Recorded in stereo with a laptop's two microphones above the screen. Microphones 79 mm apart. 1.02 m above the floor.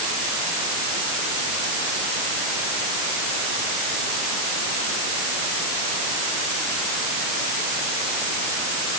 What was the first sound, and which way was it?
Only background noise.